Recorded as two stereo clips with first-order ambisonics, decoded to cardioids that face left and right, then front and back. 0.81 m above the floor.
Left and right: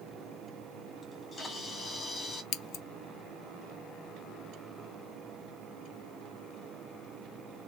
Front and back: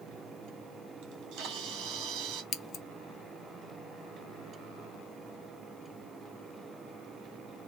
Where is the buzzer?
I don't hear a buzzer.